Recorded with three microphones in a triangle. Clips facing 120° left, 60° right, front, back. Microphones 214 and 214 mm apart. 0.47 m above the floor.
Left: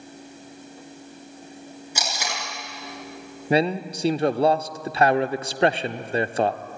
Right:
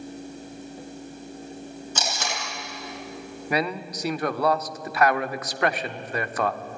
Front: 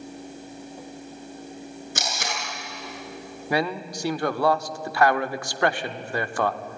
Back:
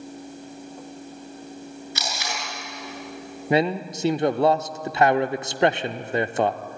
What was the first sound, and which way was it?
Tape being pulled, 40° left.